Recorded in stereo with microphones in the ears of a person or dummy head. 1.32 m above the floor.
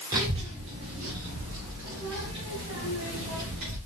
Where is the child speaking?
20° right (ahead or behind), 0.8 m; by 3.8 s 80° right, 2.5 m.